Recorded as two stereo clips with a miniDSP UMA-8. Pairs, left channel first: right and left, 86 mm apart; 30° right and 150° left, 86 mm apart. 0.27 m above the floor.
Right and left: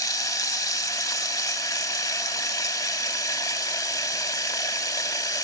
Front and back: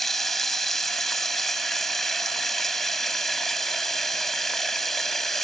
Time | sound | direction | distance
0.0 | running water | 115° right | 0.7 m